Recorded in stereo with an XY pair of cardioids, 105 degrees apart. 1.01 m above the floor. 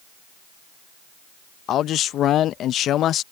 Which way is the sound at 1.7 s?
70° left.